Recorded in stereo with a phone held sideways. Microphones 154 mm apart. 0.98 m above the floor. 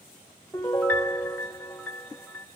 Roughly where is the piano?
Centre.